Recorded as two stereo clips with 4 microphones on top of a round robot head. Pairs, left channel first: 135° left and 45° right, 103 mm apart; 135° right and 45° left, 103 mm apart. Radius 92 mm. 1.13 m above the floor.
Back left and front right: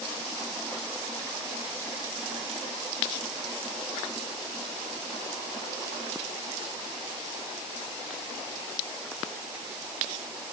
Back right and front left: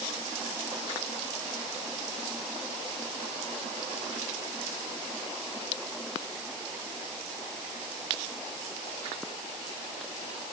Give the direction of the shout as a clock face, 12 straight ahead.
No shout in this recording.